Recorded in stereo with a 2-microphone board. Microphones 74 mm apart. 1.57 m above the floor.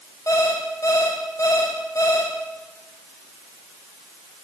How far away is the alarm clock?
About 4.5 m.